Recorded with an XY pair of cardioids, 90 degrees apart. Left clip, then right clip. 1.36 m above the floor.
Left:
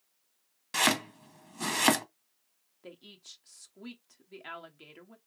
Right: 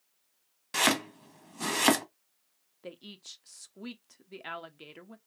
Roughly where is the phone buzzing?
No phone buzzing in this recording.